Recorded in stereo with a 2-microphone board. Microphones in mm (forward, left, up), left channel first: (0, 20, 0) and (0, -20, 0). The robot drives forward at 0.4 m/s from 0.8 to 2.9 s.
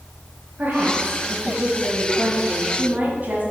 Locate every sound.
0.6 s a woman speaking: 45° right (ahead or behind), 2 m; by 3.4 s 35° right (ahead or behind), 2.5 m